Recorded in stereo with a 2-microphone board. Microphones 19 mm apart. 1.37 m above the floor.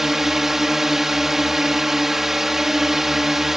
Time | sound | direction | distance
0.0 | a drone | 15° right (ahead or behind) | ?